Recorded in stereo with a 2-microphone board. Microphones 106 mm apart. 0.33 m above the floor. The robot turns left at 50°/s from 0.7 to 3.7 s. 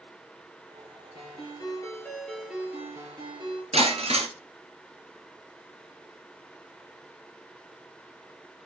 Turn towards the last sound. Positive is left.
turn(degrees=-80)